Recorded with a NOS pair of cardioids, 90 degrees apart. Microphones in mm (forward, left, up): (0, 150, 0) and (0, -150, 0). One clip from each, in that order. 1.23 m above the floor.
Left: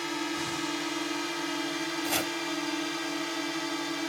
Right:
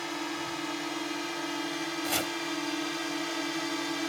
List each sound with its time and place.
0.0 s a drone: 30° left; by 4.1 s 5° left
2.0 s chopping: 10° left